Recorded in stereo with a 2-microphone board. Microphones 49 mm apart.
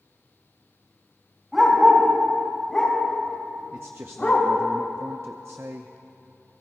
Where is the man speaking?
60° right (ahead or behind), 0.6 m.